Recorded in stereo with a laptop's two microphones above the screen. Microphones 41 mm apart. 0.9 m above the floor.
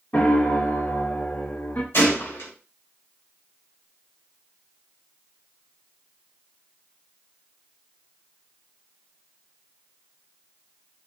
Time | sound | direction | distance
0.1 | a piano | 40° left (ahead or behind) | 0.8 m
1.9 | a gunshot | 60° left (ahead or behind) | 3 m